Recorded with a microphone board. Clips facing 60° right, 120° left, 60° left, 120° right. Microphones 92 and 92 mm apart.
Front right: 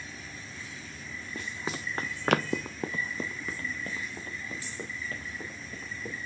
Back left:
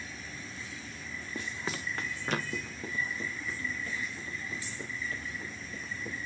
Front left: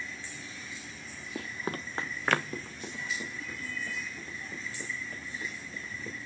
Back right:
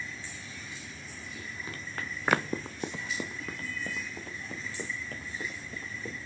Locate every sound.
1.4 s running footsteps: 35° left, 1.1 m; by 6.2 s 105° right, 4.5 m